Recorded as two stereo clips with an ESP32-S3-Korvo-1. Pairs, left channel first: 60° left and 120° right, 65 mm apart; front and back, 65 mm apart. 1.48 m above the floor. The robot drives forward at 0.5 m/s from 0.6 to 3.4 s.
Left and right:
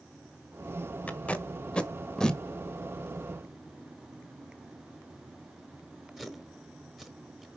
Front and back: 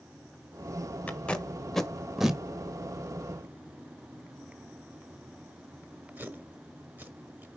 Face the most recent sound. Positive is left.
turn(degrees=160)